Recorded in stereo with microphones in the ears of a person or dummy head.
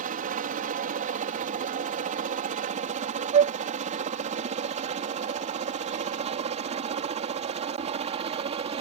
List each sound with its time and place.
0.0 s a helicopter: 45° right (ahead or behind); by 8.8 s 35° right (ahead or behind)
3.3 s a flute: 35° right (ahead or behind)